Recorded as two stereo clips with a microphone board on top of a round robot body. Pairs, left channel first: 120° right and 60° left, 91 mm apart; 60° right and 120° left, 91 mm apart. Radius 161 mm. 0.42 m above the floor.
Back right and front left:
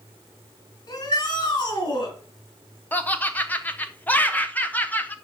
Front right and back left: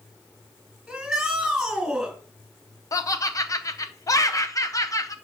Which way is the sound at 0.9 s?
155° right.